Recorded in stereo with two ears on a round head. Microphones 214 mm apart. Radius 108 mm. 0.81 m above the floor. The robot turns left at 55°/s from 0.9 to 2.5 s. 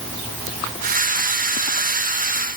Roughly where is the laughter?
I don't hear laughter.